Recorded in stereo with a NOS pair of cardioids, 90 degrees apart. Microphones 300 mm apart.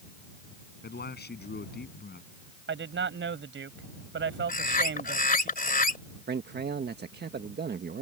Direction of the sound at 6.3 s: 35° right.